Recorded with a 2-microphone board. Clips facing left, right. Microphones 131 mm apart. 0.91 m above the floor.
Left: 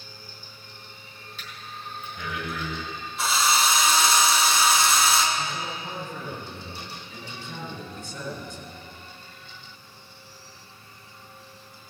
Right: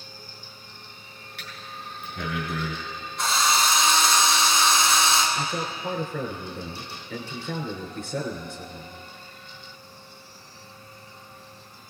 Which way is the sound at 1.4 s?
75° right (ahead or behind).